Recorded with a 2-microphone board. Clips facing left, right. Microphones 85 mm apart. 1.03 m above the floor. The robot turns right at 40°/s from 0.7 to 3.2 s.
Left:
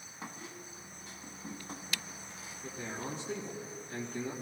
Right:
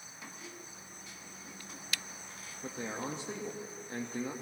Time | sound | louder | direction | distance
0.2 | a squeak | left 3 dB | 75° left | 1.1 m
2.6 | a man speaking | right 2 dB | 50° right (ahead or behind) | 1.5 m